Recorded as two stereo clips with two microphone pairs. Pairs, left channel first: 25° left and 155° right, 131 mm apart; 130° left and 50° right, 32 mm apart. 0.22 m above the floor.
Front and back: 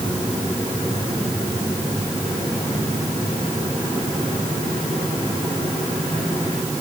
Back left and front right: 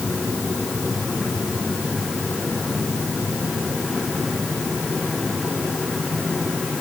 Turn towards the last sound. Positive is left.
No sound to turn to.